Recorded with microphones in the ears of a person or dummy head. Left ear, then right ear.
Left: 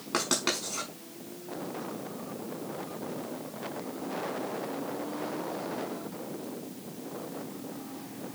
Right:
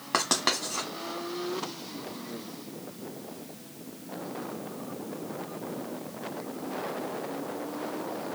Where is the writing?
35° right (ahead or behind), 0.9 m.